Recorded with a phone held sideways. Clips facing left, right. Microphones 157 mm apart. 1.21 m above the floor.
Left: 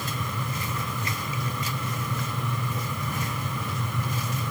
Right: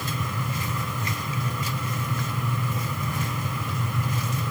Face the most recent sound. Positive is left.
turn(degrees=-10)  # may be behind; listen again after turning